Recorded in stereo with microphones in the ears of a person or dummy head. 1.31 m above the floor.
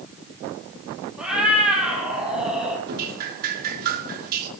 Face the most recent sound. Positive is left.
turn(degrees=-55)  # may be behind; listen again after turning